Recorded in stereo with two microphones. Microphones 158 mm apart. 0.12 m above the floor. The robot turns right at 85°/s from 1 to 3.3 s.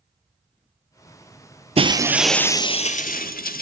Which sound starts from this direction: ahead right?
Breaking glass, at 1.8 s.